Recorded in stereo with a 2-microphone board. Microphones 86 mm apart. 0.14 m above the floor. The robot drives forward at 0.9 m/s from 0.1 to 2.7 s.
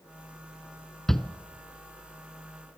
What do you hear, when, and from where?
1.1 s a shout: 5° left (ahead or behind), 1.5 m